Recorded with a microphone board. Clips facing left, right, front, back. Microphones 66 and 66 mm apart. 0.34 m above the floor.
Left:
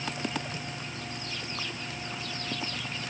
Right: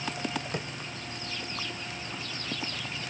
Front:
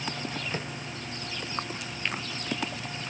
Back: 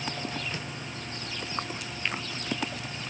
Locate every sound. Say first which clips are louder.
0.5 s tapping: right 4 dB, front 3 dB; 55° right